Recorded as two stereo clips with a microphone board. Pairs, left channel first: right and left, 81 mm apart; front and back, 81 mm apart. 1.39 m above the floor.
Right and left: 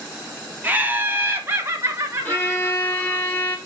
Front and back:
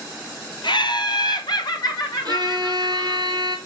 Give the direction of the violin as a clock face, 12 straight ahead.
5 o'clock.